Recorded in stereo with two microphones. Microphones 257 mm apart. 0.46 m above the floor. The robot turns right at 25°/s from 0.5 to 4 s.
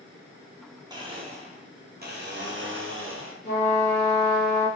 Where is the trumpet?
45° left (ahead or behind), 1.5 m.